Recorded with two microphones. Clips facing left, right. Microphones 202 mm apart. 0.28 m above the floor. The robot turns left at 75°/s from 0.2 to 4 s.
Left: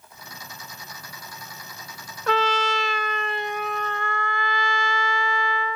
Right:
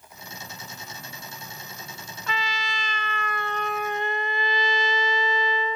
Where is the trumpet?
110° left; by 5.8 s 20° right.